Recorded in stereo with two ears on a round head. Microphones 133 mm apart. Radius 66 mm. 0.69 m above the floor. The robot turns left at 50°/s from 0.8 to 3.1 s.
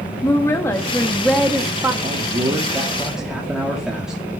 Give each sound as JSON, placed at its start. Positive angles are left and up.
{"t": 0.2, "sound": "a woman speaking", "azimuth_deg": 30, "distance_m": 0.8}
{"t": 2.0, "sound": "a man speaking", "azimuth_deg": -120, "distance_m": 1.3}